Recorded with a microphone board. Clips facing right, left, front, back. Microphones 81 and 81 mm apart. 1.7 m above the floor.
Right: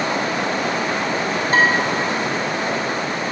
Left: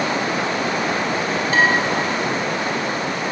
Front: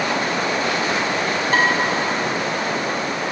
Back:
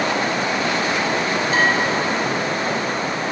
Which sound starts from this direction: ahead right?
Dishes clattering, at 1.5 s.